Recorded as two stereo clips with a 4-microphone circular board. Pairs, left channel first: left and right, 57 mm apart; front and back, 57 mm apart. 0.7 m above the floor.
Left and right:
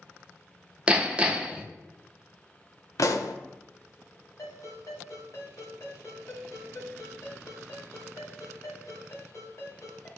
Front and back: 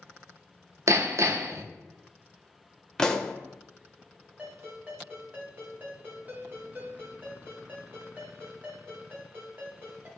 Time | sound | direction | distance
0.9 | hammering | 160° right | 0.7 m
3.0 | a pop | 80° left | 0.7 m
4.4 | a ringtone | 120° left | 2 m